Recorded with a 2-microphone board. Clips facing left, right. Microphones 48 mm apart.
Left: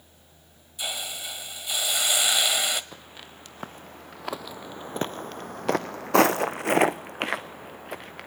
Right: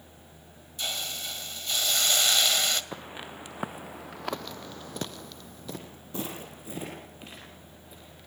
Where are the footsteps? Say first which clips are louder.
Right 5 dB; 20° right (ahead or behind), 1.4 m; by 8.3 s 65° left (ahead or behind), 1.8 m.